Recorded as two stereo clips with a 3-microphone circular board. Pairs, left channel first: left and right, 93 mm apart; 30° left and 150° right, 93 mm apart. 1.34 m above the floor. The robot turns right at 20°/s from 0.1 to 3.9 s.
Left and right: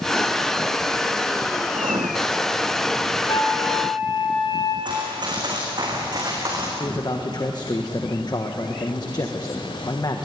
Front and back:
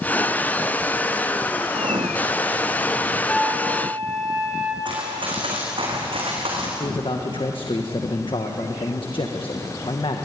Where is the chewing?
No chewing in this recording.